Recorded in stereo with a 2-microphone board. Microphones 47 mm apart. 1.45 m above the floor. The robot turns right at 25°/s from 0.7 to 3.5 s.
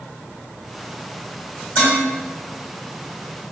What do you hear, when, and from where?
1.8 s dishes clattering: 65° left (ahead or behind), 1.6 m